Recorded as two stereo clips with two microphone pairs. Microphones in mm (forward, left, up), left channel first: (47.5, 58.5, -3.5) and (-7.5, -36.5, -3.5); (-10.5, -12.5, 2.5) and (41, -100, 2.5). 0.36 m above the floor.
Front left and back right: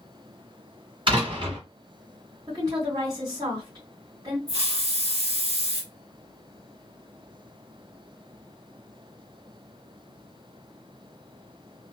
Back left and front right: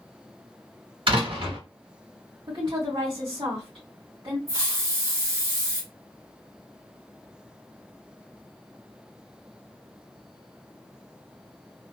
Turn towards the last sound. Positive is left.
turn(degrees=-120)